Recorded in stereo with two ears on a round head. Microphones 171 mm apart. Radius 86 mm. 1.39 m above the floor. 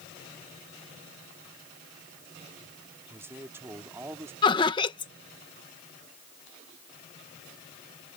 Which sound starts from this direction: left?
Laughter, at 4.4 s.